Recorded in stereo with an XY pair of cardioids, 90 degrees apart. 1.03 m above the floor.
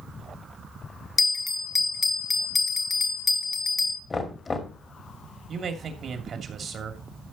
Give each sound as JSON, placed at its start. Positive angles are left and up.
{"t": 1.2, "sound": "a bell", "azimuth_deg": 40, "distance_m": 1.4}
{"t": 4.1, "sound": "knocking", "azimuth_deg": 40, "distance_m": 2.5}
{"t": 5.5, "sound": "a man speaking", "azimuth_deg": -55, "distance_m": 2.5}